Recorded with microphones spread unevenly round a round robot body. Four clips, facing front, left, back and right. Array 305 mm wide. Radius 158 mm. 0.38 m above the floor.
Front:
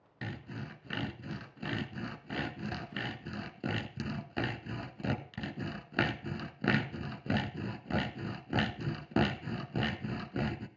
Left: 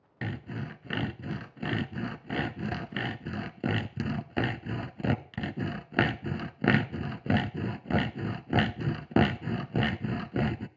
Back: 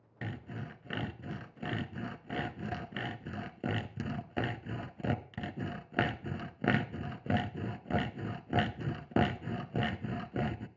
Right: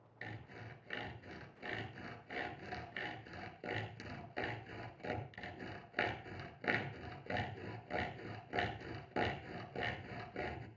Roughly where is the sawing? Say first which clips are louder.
Left 14 dB, even; left.